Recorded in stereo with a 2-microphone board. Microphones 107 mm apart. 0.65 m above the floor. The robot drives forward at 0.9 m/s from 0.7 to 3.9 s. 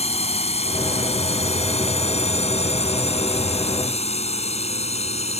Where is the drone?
75° left (ahead or behind); by 5.4 s 80° left.